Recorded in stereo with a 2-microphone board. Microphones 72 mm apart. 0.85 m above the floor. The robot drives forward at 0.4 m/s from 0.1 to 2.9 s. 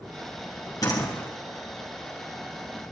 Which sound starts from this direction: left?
A door slam, at 0.8 s.